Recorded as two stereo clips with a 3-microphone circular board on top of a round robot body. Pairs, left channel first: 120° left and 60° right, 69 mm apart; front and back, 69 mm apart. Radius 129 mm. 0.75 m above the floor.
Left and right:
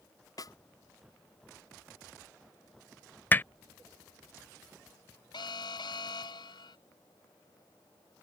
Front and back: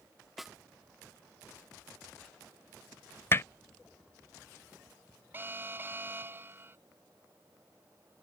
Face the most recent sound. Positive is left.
turn(degrees=115)